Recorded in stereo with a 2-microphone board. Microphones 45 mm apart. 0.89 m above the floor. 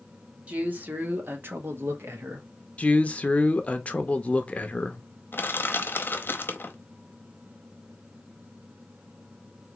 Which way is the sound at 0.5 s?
35° right (ahead or behind).